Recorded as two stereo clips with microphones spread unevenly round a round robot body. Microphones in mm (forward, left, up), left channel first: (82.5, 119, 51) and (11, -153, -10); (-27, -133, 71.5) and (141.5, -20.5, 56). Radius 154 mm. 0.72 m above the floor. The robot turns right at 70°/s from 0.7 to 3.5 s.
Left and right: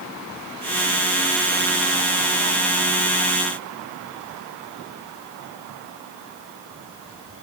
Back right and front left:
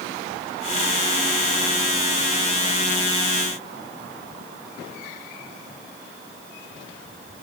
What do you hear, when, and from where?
Only background noise.